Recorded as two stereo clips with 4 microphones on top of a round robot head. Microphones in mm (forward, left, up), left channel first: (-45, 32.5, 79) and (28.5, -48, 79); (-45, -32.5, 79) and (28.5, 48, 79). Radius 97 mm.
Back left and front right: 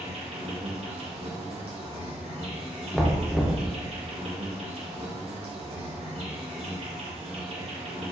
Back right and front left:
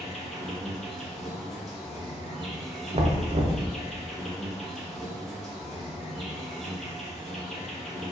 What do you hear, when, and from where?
0.0 s an insect: 45° right, 1.3 m
2.9 s knocking: 45° left, 0.7 m